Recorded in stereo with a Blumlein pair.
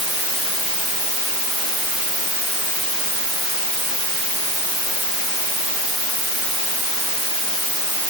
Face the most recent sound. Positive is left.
No sound to turn to.